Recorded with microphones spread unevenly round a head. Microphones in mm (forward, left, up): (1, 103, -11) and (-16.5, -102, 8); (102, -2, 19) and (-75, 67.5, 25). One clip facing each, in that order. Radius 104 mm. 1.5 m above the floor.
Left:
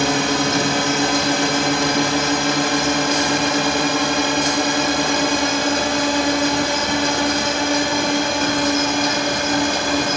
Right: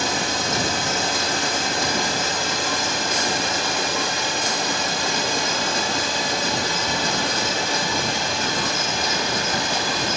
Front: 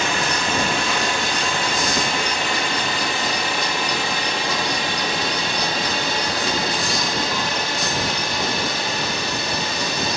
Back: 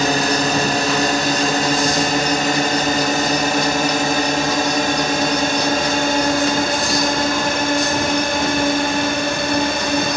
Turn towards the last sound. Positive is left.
turn(degrees=120)